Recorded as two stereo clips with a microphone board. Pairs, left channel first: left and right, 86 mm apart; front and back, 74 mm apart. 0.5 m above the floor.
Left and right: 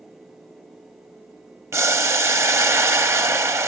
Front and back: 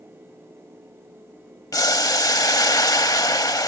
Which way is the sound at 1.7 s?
35° right.